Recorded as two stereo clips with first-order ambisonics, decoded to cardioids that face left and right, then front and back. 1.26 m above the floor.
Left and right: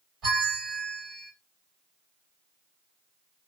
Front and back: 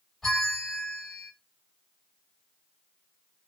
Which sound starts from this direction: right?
A bell, at 0.2 s.